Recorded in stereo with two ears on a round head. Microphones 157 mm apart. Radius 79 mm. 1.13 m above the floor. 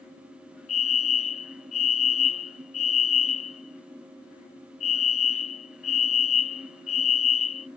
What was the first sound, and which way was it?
A fire alarm, 40° left (ahead or behind).